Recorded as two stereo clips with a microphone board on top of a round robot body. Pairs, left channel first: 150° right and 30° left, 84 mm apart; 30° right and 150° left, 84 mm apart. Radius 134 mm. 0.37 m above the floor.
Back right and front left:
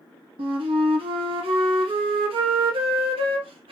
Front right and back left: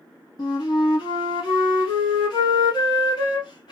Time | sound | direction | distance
0.4 | a flute | 15° left | 0.8 m